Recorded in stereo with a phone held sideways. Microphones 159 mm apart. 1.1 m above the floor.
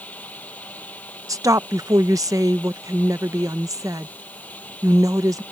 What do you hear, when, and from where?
0.0 s a fan: 10° left (ahead or behind)
1.3 s a woman speaking: 20° right (ahead or behind)